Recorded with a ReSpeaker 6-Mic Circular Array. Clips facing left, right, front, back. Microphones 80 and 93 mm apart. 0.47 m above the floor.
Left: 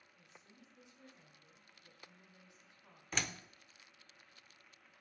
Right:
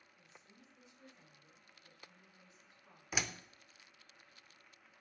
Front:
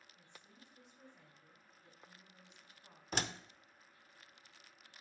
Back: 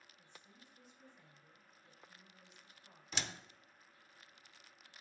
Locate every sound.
0.1 s a woman speaking: 15° left, 4.5 m
3.1 s a door slam: 10° right, 0.6 m